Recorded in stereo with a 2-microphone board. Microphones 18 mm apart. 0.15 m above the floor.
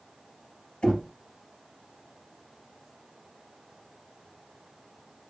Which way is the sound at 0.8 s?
65° left (ahead or behind).